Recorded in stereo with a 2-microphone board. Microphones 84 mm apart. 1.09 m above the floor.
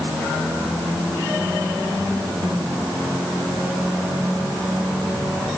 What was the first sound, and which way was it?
Only background noise.